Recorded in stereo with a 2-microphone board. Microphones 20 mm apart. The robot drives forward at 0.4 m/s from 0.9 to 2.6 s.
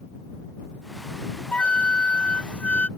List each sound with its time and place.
1.5 s a flute: 80° left; by 2.9 s 70° left (ahead or behind)